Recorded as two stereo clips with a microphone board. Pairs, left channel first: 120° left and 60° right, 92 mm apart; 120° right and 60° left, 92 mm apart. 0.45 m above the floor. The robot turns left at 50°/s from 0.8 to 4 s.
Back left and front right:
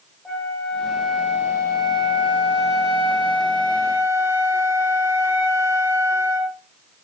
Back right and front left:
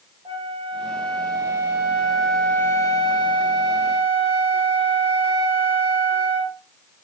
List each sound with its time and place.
0.2 s a flute: 40° left, 2.5 m; by 6.6 s 120° right, 2.5 m